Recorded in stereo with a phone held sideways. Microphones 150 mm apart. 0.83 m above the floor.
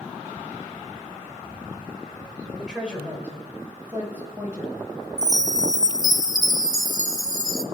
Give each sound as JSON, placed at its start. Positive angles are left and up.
{"t": 2.6, "sound": "a woman speaking", "side_deg": -5, "distance_m": 3.5}
{"t": 5.2, "sound": "a chime", "side_deg": -25, "distance_m": 0.7}